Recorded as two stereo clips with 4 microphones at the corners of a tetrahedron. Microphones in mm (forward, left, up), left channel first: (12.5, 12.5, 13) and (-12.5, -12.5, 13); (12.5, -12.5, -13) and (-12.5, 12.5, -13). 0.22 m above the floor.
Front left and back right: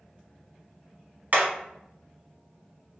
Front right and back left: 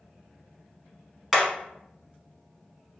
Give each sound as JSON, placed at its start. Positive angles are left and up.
{"t": 1.3, "sound": "hammering", "azimuth_deg": -145, "distance_m": 0.8}